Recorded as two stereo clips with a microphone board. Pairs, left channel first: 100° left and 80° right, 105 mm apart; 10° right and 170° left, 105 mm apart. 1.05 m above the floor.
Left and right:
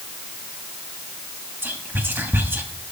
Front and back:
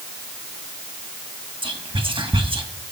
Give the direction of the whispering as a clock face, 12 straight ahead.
5 o'clock.